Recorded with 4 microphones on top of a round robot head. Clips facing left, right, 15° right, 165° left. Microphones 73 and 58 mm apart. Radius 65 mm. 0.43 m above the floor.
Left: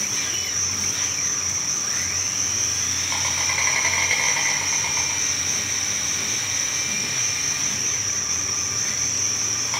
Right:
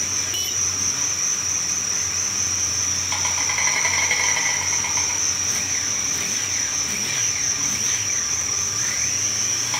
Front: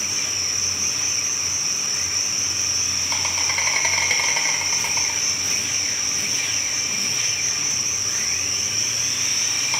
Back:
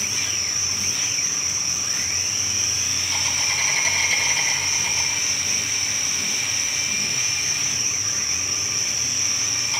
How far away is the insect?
About 2.5 m.